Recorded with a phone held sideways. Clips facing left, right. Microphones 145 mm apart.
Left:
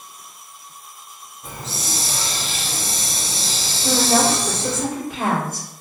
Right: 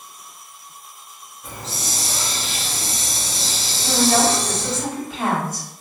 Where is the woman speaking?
60° left (ahead or behind), 1.3 m.